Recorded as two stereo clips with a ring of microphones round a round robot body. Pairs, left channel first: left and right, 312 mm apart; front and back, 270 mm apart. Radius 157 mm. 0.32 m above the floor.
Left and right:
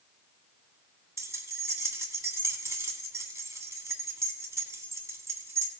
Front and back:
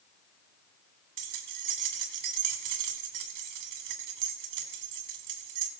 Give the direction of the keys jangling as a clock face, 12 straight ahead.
6 o'clock.